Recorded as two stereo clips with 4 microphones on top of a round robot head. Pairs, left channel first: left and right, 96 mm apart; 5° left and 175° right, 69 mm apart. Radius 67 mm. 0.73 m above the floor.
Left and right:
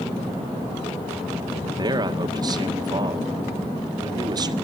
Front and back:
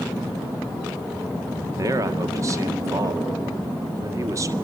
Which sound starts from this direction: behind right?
A man speaking, at 1.8 s.